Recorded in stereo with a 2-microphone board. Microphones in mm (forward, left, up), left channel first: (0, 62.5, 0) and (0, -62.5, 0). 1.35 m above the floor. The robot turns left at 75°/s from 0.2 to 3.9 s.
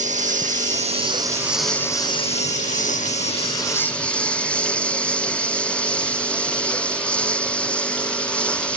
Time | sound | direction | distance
0.0 | a lawn mower | 75° right | ?